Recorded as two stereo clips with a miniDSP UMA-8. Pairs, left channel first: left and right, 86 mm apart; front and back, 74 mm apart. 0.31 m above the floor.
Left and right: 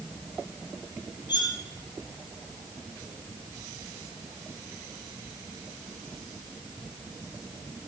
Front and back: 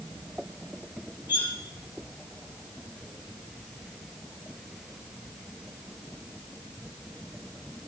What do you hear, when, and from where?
1.3 s cutlery clinking: 115° left, 5.5 m